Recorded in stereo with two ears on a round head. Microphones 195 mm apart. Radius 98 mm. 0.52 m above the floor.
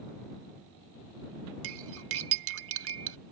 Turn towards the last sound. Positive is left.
turn(degrees=-65)  # may be behind; listen again after turning